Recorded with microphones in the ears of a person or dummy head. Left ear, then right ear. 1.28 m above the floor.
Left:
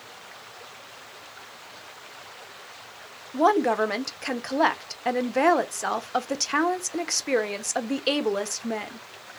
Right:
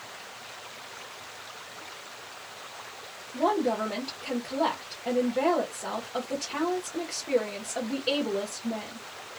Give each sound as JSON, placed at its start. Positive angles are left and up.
{"t": 3.3, "sound": "a woman speaking", "side_deg": 65, "distance_m": 0.5}